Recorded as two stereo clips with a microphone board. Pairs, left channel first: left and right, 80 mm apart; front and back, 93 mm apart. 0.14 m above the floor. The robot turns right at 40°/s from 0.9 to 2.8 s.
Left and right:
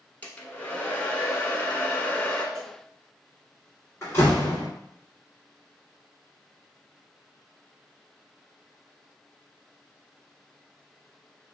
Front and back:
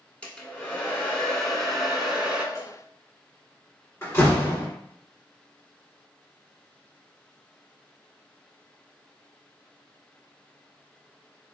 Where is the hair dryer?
60° left, 0.7 m; by 2.5 s 120° left, 0.7 m.